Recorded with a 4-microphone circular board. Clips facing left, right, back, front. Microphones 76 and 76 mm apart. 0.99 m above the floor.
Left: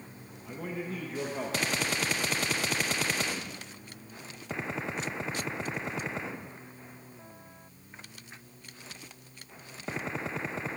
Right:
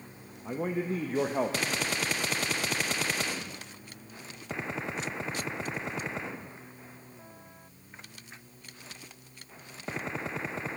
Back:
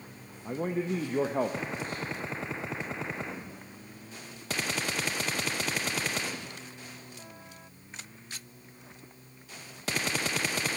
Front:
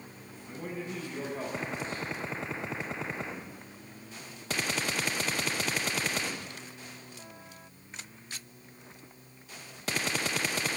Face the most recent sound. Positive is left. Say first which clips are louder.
# right 6 dB, back 8 dB
turn(degrees=-145)